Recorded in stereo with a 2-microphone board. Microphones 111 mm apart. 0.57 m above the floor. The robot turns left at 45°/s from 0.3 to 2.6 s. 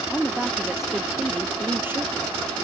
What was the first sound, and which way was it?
A woman speaking, 5° left (ahead or behind).